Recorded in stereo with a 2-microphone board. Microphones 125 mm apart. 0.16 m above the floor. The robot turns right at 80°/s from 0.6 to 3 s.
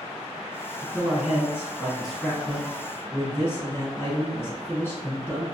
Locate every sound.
0.8 s a man speaking: 20° right (ahead or behind), 1.1 m; by 5.5 s 20° left (ahead or behind), 1.1 m